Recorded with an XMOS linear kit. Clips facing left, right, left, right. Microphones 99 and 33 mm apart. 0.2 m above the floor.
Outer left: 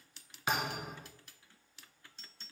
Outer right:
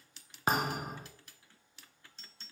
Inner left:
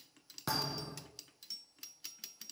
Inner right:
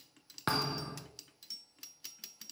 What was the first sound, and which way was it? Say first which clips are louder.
A thud: outer right 4 dB, inner right 4 dB; 40° right (ahead or behind).